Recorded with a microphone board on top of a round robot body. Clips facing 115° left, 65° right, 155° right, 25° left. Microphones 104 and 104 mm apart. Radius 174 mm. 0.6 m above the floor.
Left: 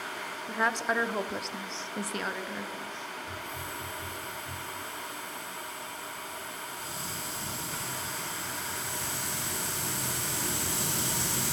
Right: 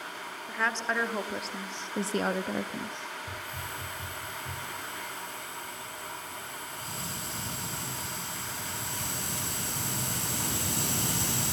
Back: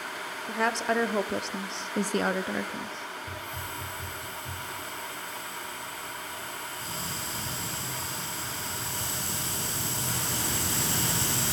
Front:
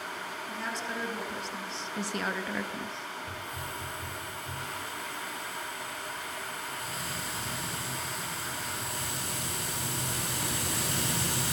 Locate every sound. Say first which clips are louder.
0.5 s a woman speaking: left 2 dB, back 11 dB; 175° right, 2.5 m; by 3.1 s 65° right, 1.5 m
3.3 s a hiss: even, back 1 dB; 95° right, 6.5 m